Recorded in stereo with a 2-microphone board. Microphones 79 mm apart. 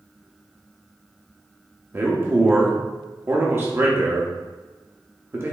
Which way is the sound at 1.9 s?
30° right (ahead or behind).